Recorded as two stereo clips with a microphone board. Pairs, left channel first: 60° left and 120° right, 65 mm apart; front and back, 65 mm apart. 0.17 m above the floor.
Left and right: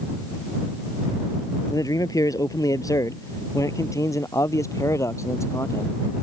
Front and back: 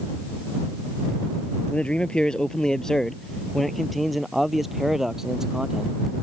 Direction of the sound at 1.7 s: 70° left.